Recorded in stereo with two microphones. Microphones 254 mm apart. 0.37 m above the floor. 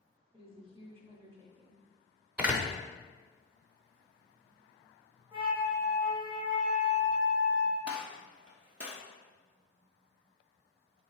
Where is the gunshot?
80° right, 0.9 m.